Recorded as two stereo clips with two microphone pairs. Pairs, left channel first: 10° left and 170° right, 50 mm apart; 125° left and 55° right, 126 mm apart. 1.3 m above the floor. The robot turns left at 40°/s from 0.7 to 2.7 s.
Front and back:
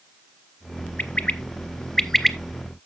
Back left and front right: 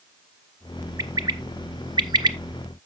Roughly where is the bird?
Ahead.